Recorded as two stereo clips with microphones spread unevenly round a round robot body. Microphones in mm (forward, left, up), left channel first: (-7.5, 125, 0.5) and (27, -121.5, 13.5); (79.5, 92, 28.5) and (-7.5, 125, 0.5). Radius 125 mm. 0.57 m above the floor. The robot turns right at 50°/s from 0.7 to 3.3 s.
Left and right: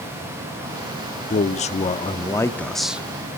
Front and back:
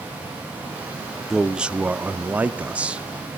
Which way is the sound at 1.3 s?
110° left.